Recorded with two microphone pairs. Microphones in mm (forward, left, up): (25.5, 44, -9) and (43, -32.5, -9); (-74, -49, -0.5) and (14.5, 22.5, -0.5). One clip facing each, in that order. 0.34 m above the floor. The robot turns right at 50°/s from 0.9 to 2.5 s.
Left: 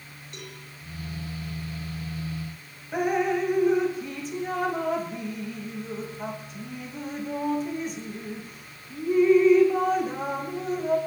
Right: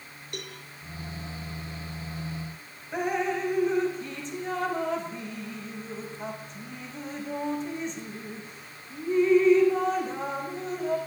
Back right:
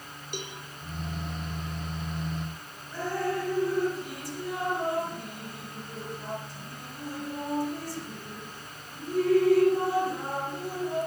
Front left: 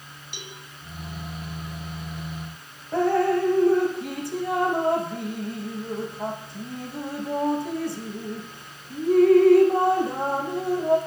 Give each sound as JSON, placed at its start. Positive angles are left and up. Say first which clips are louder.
{"t": 0.3, "sound": "a cowbell", "louder": "right 3 dB, back right 5 dB", "azimuth_deg": -100, "distance_m": 6.5}
{"t": 2.9, "sound": "dripping", "louder": "left 3 dB, front left 9 dB", "azimuth_deg": 20, "distance_m": 5.0}